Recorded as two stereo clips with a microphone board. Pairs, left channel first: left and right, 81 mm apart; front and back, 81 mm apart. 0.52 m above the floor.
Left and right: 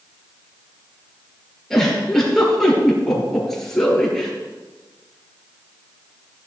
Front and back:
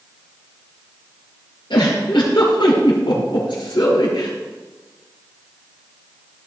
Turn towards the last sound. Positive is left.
turn(degrees=5)